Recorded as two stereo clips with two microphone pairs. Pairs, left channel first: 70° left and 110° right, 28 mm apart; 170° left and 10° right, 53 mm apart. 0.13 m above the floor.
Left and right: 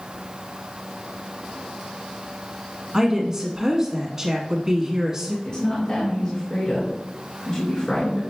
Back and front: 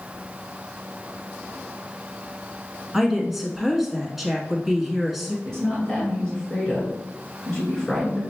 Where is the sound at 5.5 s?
105° left, 1.9 m.